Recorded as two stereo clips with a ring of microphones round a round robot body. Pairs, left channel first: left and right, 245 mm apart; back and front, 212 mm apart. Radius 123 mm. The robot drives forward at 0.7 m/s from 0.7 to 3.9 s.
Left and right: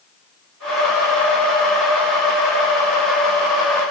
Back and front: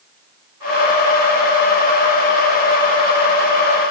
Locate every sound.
Only background noise.